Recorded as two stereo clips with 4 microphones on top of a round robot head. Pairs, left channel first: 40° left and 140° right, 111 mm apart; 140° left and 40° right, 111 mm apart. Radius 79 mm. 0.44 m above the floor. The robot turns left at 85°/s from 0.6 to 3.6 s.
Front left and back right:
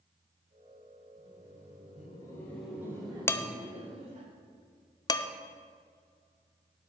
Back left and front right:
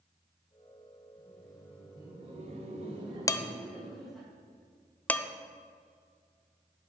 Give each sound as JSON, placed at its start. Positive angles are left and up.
{"t": 1.2, "sound": "laughter", "azimuth_deg": 80, "distance_m": 2.0}
{"t": 3.3, "sound": "dishes clattering", "azimuth_deg": 100, "distance_m": 0.5}